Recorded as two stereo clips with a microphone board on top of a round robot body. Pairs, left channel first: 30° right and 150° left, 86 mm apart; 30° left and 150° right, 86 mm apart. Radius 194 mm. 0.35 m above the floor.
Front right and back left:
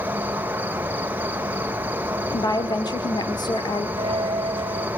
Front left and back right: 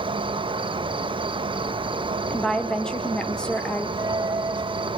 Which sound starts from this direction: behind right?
An insect, at 0.0 s.